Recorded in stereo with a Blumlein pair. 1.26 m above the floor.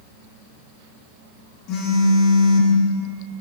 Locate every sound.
1.7 s a phone buzzing: 35° left, 1.9 m